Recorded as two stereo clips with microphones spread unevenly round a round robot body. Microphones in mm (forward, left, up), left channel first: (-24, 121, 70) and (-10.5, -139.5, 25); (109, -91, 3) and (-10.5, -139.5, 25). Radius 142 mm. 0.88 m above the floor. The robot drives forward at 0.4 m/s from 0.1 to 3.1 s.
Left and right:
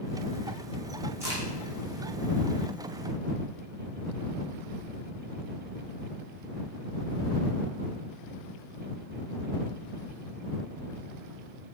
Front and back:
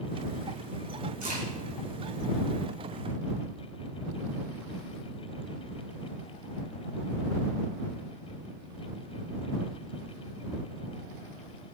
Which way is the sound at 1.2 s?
170° right.